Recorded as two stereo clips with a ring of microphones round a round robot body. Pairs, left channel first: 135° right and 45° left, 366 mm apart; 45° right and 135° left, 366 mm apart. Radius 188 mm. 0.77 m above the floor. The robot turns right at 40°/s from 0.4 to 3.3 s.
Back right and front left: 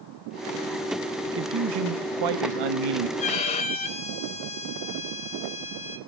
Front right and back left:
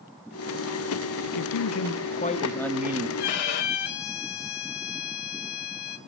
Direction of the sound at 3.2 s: 65° right.